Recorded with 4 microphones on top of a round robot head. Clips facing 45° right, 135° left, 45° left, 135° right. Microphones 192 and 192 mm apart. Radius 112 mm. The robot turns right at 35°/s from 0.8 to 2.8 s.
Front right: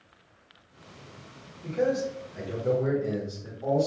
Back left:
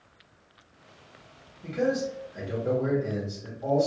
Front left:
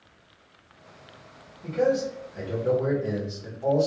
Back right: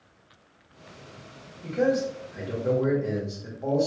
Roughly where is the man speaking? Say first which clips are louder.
Even, even; behind.